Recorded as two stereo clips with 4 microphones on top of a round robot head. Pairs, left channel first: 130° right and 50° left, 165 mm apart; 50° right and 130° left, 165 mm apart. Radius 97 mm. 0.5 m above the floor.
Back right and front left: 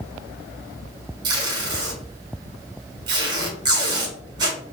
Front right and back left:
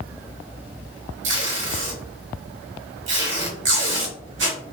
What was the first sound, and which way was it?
Tape being pulled, 115° left.